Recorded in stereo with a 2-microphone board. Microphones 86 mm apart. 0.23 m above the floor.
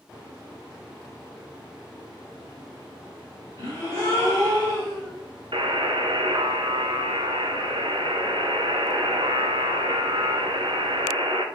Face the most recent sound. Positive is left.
turn(degrees=-75)  # may be behind; listen again after turning